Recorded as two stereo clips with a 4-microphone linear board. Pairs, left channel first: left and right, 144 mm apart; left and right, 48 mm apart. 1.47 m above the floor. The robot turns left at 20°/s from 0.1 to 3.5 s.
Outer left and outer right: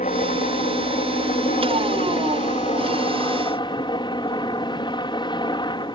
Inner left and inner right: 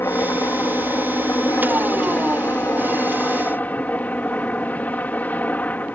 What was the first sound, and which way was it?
A helicopter, 105° left.